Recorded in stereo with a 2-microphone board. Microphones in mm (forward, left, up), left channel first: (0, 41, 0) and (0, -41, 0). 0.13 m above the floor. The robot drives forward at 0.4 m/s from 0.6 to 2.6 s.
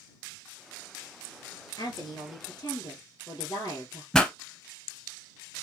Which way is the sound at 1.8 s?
55° left (ahead or behind).